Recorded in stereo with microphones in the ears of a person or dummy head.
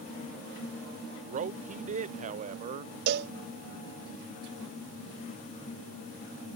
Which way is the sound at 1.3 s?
40° right (ahead or behind).